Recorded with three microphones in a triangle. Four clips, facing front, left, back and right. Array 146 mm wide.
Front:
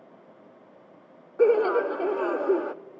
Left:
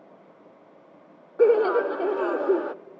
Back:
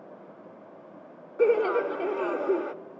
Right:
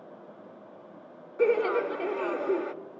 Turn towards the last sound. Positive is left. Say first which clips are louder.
# left 6 dB, front 2 dB
turn(degrees=65)